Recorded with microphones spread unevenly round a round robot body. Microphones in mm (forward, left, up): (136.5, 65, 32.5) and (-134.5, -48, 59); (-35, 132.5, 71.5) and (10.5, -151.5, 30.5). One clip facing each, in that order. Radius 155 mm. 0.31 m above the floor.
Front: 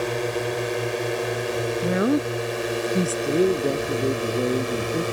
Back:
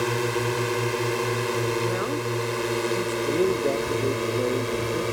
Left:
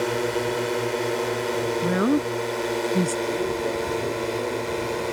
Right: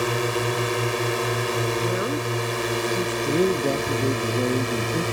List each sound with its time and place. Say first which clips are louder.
0.0 s a drone: even, left 1 dB; 110° right; by 5.2 s 70° right
1.8 s a woman speaking: front 5 dB, left 4 dB; 60° left
3.2 s a man speaking: front 2 dB, right 4 dB; 45° right